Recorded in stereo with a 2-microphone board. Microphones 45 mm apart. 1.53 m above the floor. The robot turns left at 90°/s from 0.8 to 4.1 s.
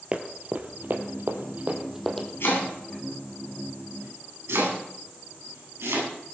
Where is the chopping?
65° left (ahead or behind), 9 m; by 6.1 s 85° right, 9 m.